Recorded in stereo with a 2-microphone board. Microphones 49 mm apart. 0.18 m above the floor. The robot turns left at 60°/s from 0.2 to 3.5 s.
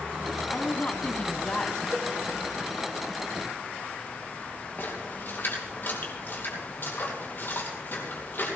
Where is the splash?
50° left (ahead or behind), 3.5 m.